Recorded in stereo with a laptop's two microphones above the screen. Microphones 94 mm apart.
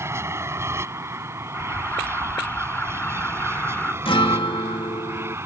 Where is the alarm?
20° left (ahead or behind).